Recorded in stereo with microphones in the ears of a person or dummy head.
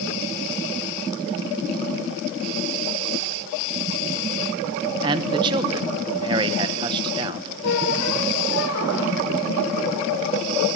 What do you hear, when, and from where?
5.0 s a man speaking: 20° right (ahead or behind), 0.9 m
7.6 s a squeak: 75° left (ahead or behind), 3.5 m